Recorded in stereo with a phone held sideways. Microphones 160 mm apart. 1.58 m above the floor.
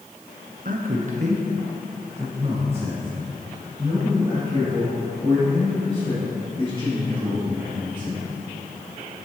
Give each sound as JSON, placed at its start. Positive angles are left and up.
{"t": 0.7, "sound": "a man speaking", "side_deg": -60, "distance_m": 0.7}